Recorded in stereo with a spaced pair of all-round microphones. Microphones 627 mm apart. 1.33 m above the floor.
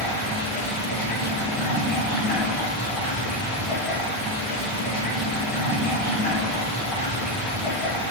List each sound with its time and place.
0.0 s running water: 10° left (ahead or behind), 1.0 m